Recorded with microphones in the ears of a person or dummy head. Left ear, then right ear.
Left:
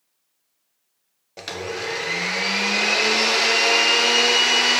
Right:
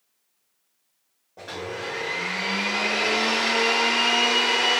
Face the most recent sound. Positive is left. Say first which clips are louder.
# left 4 dB
turn(degrees=75)  # may be behind; listen again after turning